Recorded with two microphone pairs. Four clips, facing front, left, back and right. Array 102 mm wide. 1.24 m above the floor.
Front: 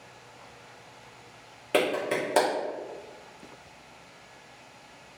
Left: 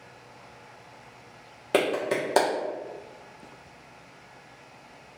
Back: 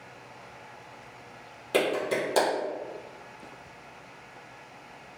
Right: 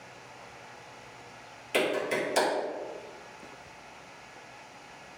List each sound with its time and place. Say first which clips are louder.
1.7 s a clap: left 4 dB, even; 75° left, 0.9 m